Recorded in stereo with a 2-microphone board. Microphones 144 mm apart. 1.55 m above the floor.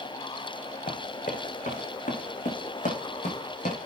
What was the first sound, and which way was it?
Running footsteps, 75° left (ahead or behind).